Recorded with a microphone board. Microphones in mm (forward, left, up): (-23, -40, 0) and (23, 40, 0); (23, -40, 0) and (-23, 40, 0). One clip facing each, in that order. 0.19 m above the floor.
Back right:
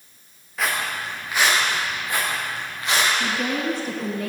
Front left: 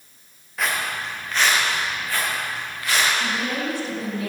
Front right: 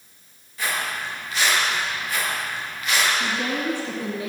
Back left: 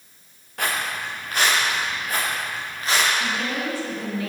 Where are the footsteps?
150° left, 2.5 m; by 3.1 s 175° left, 3.5 m.